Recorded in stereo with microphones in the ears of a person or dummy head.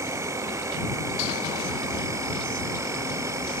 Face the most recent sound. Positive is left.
turn(degrees=-15)  # may be behind; listen again after turning